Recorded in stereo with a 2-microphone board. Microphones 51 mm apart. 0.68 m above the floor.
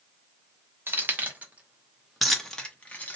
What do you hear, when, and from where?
0.9 s keys jangling: 45° right (ahead or behind), 1.0 m; by 3.2 s 30° left (ahead or behind), 0.9 m